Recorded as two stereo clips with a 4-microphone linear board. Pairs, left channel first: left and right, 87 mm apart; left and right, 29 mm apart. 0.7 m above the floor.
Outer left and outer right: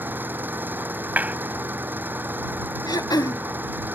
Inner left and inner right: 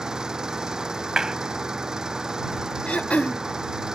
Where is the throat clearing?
50° left (ahead or behind).